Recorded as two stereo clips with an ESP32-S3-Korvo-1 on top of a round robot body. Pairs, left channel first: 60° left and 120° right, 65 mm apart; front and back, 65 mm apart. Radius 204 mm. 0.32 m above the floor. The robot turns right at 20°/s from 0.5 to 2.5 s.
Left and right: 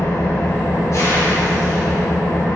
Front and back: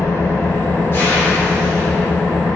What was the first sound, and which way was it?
An engine running, 35° left.